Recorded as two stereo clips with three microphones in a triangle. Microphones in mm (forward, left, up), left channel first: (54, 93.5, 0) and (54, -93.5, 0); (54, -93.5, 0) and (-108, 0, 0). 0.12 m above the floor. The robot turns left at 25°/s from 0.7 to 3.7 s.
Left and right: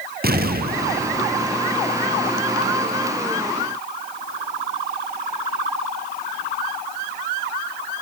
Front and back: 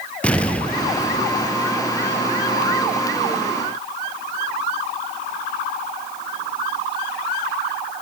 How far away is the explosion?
About 2.5 m.